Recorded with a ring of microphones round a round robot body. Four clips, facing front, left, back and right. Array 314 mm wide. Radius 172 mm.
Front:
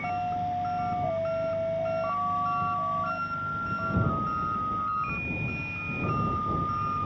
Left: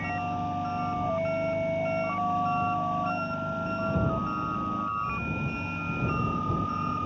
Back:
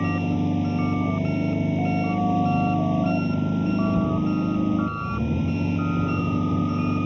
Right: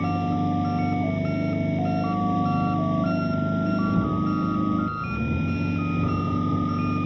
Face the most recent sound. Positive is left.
turn(degrees=-150)